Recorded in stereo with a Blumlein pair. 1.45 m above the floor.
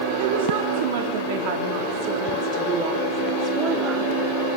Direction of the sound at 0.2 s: 65° right.